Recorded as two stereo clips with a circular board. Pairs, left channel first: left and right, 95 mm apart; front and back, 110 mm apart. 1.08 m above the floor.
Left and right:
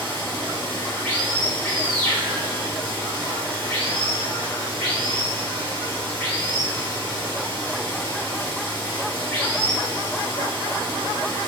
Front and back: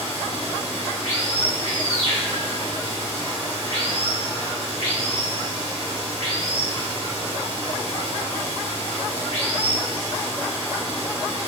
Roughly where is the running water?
Ahead.